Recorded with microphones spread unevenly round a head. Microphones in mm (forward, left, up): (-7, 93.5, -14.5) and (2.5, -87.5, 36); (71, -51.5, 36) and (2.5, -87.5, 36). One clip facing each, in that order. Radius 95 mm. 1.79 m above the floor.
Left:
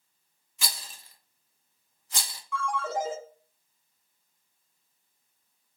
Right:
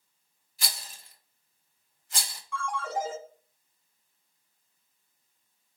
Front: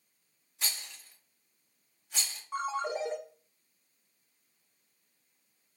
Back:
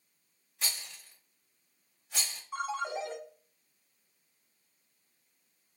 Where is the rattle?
115° left, 0.7 m.